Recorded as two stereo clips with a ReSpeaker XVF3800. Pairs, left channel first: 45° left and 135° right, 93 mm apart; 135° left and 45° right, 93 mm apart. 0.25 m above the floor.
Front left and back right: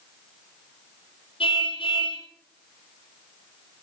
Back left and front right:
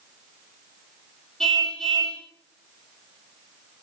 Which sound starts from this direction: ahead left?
A car horn, at 1.4 s.